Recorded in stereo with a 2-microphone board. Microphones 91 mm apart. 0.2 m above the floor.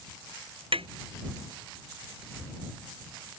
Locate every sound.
0.7 s tapping: 85° right